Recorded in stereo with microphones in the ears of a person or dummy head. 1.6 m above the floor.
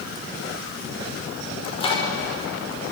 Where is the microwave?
35° left (ahead or behind), 5 m.